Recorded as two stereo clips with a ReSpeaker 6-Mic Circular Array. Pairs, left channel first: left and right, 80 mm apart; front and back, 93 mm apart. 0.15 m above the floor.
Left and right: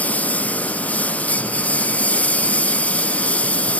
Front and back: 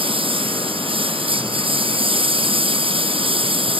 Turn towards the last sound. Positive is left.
turn(degrees=165)